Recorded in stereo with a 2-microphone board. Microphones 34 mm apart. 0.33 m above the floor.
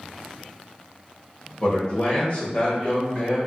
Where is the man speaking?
30° left (ahead or behind), 1.1 m; by 3.4 s 40° left (ahead or behind), 1.5 m.